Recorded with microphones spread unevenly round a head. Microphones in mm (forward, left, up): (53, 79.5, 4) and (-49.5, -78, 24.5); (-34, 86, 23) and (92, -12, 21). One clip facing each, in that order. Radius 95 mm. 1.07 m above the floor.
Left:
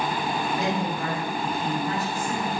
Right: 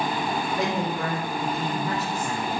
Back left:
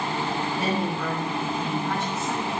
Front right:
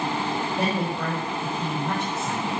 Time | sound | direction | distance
0.6 | a woman speaking | 100° right | 4.5 m